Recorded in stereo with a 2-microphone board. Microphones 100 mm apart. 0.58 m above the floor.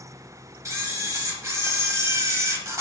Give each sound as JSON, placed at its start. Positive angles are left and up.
{"t": 0.7, "sound": "a camera shutter", "side_deg": -30, "distance_m": 1.4}